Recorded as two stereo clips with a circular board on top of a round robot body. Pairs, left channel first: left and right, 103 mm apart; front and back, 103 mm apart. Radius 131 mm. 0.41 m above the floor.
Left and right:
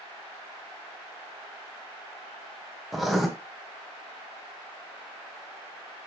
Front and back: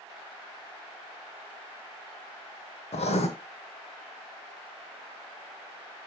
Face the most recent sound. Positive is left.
turn(degrees=0)